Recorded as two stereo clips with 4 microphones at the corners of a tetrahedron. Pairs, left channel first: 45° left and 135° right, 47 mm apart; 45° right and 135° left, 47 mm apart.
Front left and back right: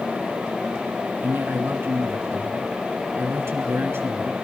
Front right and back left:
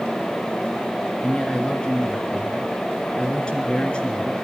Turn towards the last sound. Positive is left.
turn(degrees=-115)